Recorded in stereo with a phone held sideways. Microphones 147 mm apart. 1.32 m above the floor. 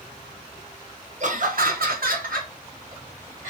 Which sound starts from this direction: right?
Laughter, at 1.2 s.